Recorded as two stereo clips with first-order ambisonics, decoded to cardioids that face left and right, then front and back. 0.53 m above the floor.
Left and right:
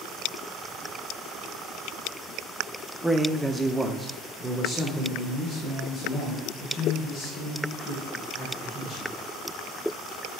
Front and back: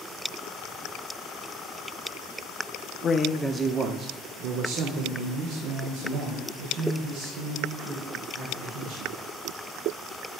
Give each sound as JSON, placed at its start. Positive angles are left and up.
{"t": 3.0, "sound": "a man speaking", "azimuth_deg": -10, "distance_m": 0.6}